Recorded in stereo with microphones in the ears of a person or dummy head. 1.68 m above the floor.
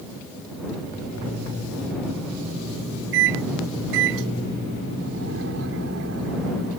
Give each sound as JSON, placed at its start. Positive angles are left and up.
{"t": 3.1, "sound": "a microwave", "side_deg": -70}